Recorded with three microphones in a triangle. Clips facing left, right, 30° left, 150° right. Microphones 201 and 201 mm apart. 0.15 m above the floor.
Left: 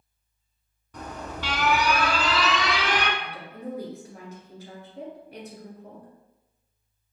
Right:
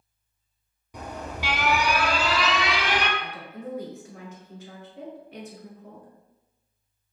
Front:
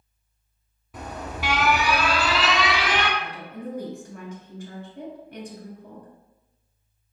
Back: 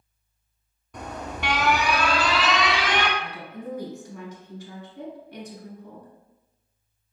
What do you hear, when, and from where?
0.9 s an alarm: 45° right, 0.7 m
3.2 s a woman speaking: 45° left, 1.9 m